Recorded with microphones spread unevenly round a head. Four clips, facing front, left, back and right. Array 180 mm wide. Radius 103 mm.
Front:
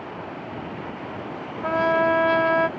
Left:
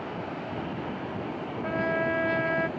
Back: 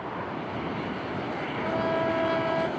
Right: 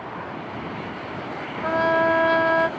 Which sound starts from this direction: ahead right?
A trumpet, at 1.6 s.